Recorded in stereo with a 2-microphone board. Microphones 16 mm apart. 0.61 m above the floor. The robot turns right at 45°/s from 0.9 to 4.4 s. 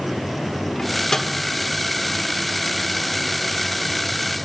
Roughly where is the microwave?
Left.